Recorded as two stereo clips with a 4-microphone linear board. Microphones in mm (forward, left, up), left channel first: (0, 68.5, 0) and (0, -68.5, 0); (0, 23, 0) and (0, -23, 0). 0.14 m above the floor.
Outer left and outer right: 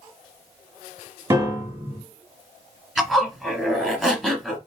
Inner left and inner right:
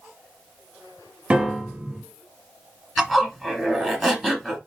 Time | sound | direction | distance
1.3 | a piano | 20° right (ahead or behind) | 1.5 m
3.0 | a zipper | centre (ahead or behind) | 1.3 m